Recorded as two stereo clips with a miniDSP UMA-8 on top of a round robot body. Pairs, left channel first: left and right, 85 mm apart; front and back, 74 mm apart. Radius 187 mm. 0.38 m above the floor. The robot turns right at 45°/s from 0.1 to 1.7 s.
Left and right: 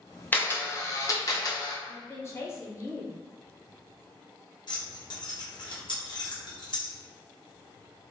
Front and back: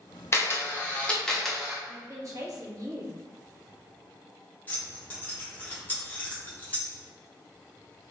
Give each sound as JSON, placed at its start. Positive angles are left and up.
{"t": 0.3, "sound": "a camera shutter", "azimuth_deg": 30, "distance_m": 1.1}
{"t": 1.9, "sound": "a woman speaking", "azimuth_deg": 145, "distance_m": 1.2}
{"t": 4.7, "sound": "keys jangling", "azimuth_deg": 65, "distance_m": 1.4}